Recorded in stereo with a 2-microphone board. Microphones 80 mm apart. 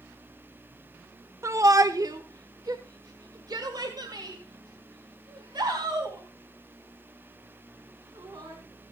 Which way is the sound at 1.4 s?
35° right (ahead or behind).